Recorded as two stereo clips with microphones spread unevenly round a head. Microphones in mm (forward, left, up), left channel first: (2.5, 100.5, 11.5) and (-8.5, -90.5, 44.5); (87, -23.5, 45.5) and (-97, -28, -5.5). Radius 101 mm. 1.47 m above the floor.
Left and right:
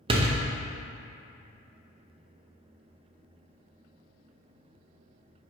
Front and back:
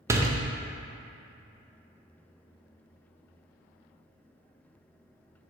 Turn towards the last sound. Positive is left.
turn(degrees=-90)